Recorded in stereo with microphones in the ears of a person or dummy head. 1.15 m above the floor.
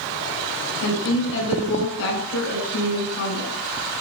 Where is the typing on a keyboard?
No typing on a keyboard in this recording.